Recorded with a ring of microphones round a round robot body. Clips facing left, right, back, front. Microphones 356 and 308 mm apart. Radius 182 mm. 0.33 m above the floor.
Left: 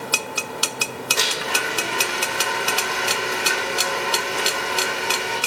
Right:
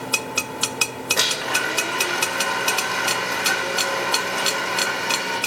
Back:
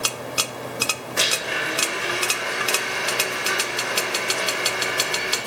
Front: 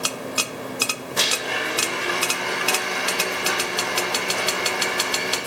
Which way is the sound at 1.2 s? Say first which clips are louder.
Left 2 dB, front 1 dB; 55° right.